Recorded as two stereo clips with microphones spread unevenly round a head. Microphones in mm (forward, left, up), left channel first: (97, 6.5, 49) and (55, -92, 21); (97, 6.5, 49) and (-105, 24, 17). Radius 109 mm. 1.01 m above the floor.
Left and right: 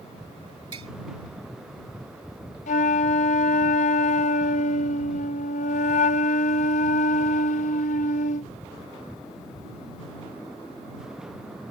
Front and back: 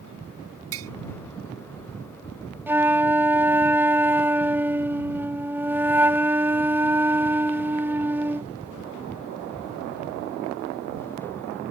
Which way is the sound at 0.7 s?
175° right.